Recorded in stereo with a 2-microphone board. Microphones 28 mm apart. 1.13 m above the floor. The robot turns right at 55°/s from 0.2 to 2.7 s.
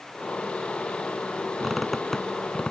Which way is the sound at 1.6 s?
15° right (ahead or behind).